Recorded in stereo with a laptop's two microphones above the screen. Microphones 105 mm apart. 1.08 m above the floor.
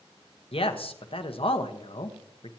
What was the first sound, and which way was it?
A man speaking, 60° left (ahead or behind).